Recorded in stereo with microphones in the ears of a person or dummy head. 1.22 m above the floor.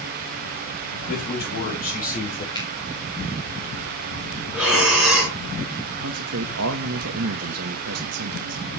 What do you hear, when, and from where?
1.1 s a man speaking: 45° left (ahead or behind), 6 m; by 2.5 s 40° left (ahead or behind), 4.5 m
2.5 s a finger snap: 20° left (ahead or behind), 3 m
4.5 s breathing: 5° right (ahead or behind), 5 m
6.0 s a man speaking: 70° right (ahead or behind), 1.3 m